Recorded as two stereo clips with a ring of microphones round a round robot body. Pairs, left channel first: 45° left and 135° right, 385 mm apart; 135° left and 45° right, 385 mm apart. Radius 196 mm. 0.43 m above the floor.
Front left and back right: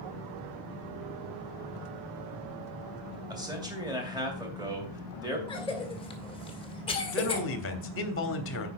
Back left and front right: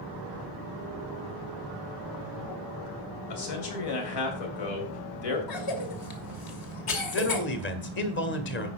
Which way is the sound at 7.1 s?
85° left.